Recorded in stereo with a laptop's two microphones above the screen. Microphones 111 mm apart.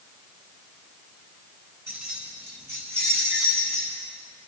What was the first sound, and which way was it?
Keys jangling, 15° right (ahead or behind).